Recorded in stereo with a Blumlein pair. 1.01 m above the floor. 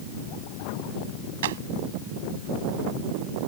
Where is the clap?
60° right.